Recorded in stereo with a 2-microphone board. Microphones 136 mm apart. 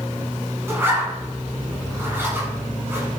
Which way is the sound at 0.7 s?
20° right (ahead or behind).